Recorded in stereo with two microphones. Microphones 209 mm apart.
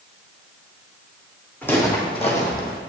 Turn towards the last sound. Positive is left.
turn(degrees=55)  # may be behind; listen again after turning